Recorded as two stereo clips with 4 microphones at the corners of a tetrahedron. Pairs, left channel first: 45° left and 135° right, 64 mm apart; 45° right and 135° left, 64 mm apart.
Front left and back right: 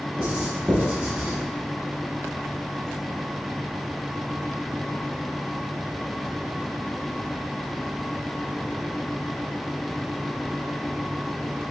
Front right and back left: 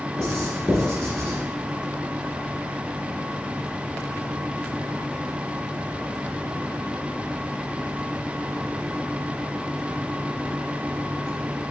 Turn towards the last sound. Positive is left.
turn(degrees=-105)